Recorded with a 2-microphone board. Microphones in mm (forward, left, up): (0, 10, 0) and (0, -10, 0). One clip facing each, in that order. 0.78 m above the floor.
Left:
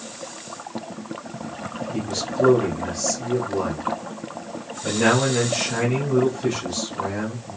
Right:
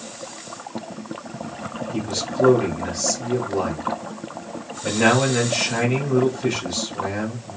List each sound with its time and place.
1.9 s a man speaking: 30° right (ahead or behind), 2.0 m